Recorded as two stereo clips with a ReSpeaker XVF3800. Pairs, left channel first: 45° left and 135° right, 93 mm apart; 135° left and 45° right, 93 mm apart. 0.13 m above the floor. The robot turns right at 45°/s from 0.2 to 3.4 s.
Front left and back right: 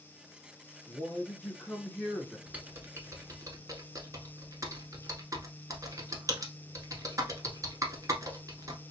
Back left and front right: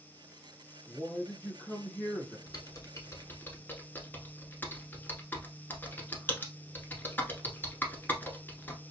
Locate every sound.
0.9 s a man speaking: 70° left, 1.4 m; by 2.4 s 135° left, 1.4 m
2.5 s typing on a keyboard: 155° left, 1.0 m; by 8.8 s 165° right, 1.0 m